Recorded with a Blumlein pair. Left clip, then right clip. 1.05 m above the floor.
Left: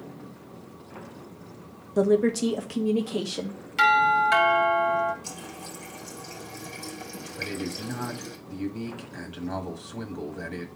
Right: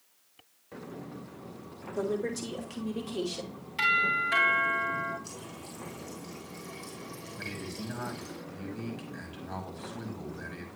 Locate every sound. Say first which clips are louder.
2.0 s a woman speaking: left 10 dB; 60° left, 0.7 m; by 3.6 s 35° left, 1.4 m
3.8 s a doorbell: left 6 dB; 65° left, 3 m
5.2 s a running tap: left 5 dB; 45° left, 2.5 m
7.4 s a man speaking: left 7 dB; 20° left, 1.9 m